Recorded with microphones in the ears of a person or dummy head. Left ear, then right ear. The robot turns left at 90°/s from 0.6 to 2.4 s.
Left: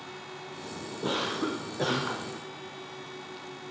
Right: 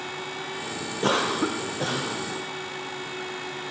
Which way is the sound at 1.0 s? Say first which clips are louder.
Right 6 dB; 110° right.